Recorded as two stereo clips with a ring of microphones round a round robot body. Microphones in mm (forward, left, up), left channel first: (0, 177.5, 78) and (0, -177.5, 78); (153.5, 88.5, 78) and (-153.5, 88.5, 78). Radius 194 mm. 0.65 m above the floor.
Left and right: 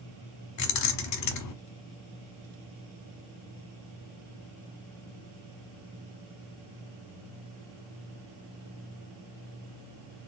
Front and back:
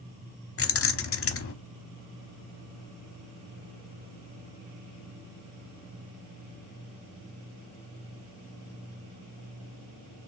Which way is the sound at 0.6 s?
50° left.